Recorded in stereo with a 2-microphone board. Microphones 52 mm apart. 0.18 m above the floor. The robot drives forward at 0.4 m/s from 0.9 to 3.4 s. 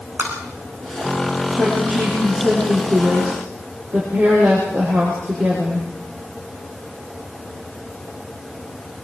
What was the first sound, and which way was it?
Tapping, 50° right (ahead or behind).